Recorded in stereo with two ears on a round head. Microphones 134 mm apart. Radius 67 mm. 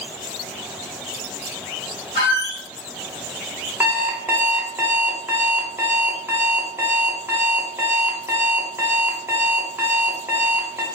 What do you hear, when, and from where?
2.1 s a squeak: 30° left (ahead or behind), 1.5 m
3.8 s an alarm clock: 15° right (ahead or behind), 0.5 m